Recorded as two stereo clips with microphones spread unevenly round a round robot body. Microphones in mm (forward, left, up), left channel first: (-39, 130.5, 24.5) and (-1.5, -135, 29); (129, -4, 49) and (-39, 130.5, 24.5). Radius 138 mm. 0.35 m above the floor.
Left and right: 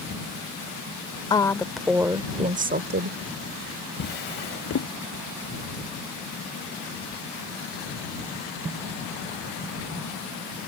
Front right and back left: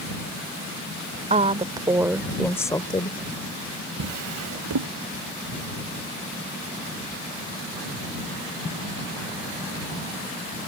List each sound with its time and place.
1.3 s a woman speaking: 160° left; by 3.2 s 100° right
4.0 s a drawer: 155° left